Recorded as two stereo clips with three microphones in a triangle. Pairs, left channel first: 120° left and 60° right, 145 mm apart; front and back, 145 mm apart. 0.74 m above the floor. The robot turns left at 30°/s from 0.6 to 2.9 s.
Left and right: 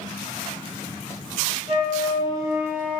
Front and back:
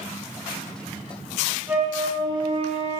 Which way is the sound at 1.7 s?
105° right.